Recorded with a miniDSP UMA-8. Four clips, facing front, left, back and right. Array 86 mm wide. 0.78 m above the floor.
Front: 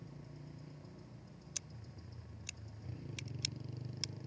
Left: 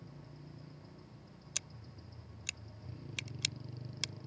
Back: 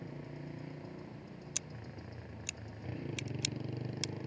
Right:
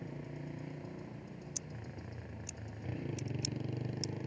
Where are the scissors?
110° left.